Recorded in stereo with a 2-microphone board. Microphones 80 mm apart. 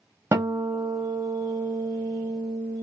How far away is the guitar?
About 1.6 m.